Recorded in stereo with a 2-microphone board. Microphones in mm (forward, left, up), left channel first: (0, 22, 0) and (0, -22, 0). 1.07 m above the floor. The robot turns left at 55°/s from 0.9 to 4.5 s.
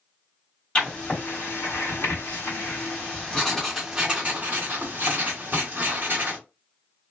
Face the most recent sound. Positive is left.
turn(degrees=-40)